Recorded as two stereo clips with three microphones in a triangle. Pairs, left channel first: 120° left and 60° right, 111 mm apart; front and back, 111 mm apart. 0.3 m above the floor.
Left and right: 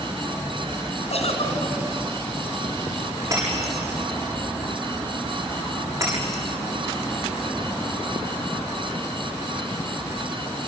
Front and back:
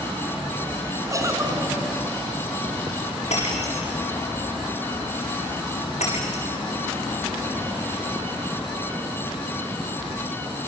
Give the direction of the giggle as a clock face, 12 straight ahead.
8 o'clock.